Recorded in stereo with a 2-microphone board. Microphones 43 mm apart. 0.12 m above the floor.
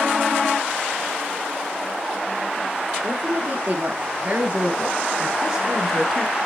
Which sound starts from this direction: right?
A woman speaking, at 3.0 s.